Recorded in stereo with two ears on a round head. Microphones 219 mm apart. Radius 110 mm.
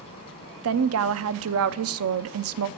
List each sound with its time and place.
0.6 s a woman speaking: 60° right (ahead or behind), 0.6 m